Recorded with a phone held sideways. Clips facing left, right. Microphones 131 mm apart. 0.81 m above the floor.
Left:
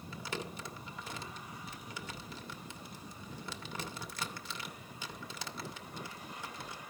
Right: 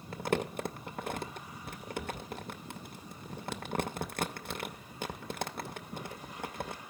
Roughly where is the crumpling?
Right.